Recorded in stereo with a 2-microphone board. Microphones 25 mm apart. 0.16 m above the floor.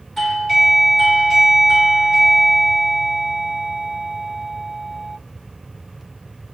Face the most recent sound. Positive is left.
turn(degrees=10)  # may be behind; listen again after turning